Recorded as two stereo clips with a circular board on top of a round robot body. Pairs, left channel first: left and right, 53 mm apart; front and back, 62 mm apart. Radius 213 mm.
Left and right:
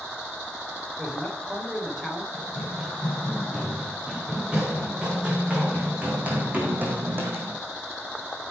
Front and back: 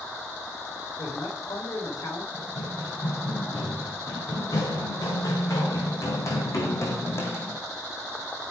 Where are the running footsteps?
10° right, 6 m; by 7.6 s 55° right, 2 m.